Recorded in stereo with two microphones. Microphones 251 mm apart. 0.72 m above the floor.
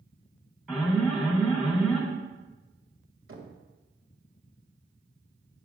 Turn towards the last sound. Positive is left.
turn(degrees=-60)  # may be behind; listen again after turning